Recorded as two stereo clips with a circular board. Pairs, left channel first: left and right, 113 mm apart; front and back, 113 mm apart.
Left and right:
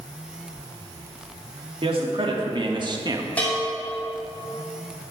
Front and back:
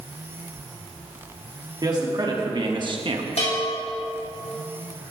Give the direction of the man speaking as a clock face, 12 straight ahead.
4 o'clock.